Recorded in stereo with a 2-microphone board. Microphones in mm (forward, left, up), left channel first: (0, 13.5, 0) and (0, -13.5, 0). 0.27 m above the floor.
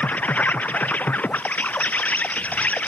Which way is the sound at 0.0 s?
85° left.